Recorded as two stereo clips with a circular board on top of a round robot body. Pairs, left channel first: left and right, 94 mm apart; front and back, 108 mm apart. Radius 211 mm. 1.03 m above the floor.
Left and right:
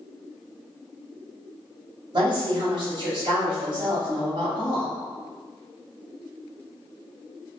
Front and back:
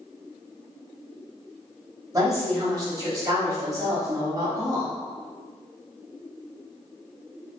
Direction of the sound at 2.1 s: 125° right.